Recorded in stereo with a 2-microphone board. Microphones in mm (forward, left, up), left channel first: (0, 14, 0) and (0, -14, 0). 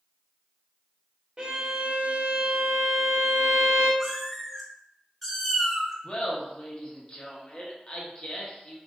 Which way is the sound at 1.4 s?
35° right (ahead or behind).